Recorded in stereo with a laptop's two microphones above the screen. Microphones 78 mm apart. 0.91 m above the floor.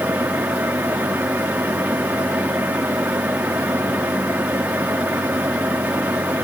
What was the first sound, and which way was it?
A fan, 20° right (ahead or behind).